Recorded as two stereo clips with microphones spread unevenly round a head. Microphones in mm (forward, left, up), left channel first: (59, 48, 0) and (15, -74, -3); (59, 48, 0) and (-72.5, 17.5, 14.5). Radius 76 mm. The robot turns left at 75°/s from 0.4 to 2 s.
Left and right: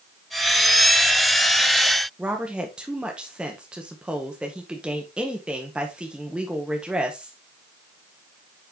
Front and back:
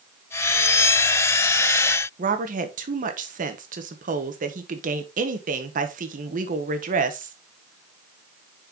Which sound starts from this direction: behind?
A woman speaking, at 2.2 s.